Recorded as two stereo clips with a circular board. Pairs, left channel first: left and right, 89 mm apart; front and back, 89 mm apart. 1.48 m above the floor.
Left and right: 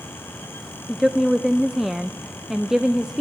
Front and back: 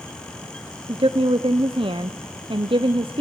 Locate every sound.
0.9 s a woman speaking: 175° right, 0.6 m